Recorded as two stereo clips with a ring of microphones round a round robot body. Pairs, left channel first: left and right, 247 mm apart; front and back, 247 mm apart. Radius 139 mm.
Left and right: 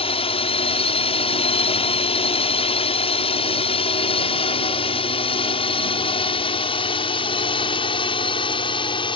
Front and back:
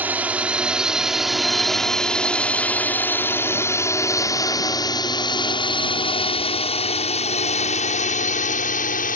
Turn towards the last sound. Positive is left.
turn(degrees=30)